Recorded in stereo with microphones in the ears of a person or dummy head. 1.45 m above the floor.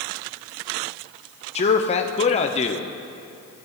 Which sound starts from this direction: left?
A man speaking, at 1.6 s.